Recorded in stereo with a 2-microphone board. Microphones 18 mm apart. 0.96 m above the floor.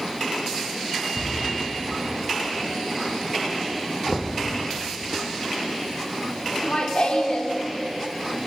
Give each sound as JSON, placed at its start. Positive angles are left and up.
{"t": 1.1, "sound": "a cupboard door", "side_deg": -25, "distance_m": 4.5}
{"t": 4.1, "sound": "knocking", "side_deg": -60, "distance_m": 0.9}
{"t": 6.5, "sound": "laughter", "side_deg": 65, "distance_m": 2.0}